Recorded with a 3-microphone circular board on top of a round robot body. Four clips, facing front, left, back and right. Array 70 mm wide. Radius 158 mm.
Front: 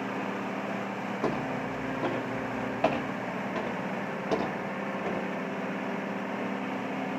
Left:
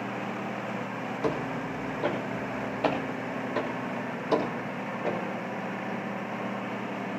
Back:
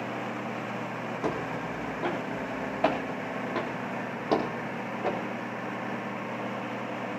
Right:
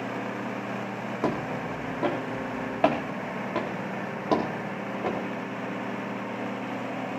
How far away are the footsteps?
About 4 m.